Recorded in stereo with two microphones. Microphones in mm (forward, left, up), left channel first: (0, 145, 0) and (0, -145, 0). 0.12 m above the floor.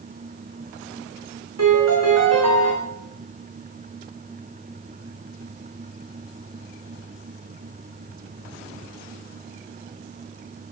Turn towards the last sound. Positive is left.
turn(degrees=-55)  # may be behind; listen again after turning